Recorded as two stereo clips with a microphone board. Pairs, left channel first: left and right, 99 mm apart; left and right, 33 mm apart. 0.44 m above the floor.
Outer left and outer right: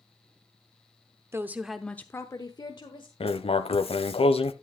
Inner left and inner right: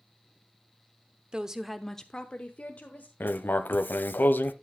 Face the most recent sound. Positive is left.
turn(degrees=75)  # may be behind; listen again after turning